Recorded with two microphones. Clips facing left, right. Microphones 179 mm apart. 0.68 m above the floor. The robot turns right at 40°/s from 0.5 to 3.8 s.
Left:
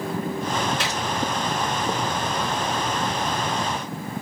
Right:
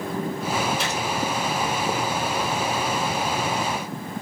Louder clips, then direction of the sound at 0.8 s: Right 1 dB; 75° left (ahead or behind).